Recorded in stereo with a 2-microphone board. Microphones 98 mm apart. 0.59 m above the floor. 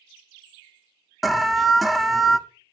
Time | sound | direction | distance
1.2 | an alarm | centre (ahead or behind) | 0.6 m